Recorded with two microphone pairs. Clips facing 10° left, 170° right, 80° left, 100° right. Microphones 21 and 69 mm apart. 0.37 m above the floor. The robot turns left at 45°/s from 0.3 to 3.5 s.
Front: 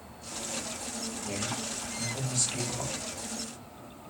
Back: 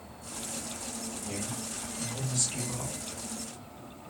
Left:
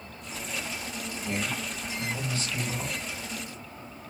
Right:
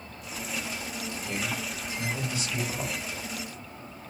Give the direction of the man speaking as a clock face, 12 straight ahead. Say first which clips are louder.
Front 4 dB, left 2 dB; 11 o'clock.